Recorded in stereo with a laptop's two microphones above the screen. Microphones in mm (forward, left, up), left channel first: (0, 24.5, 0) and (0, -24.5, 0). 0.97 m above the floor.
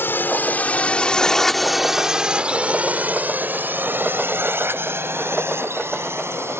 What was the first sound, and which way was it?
A drone, 45° left (ahead or behind).